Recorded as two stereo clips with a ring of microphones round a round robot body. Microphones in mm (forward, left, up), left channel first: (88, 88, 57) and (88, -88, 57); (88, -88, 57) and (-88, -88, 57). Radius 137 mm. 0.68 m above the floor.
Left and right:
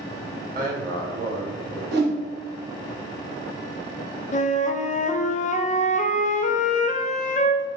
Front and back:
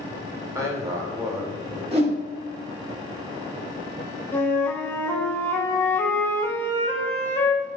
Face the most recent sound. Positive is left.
turn(degrees=75)